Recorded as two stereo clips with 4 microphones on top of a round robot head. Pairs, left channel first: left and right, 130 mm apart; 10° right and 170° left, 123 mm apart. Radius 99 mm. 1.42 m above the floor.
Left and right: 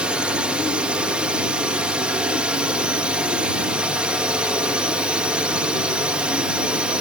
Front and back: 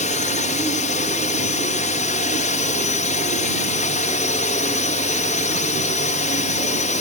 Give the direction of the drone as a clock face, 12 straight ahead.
12 o'clock.